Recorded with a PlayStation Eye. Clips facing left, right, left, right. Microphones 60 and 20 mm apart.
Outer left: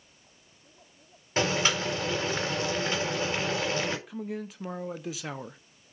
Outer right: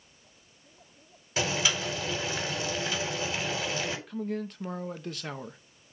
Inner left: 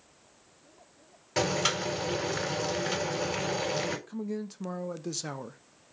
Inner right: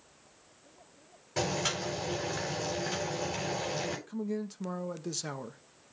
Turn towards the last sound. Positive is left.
turn(degrees=5)  # may be behind; listen again after turning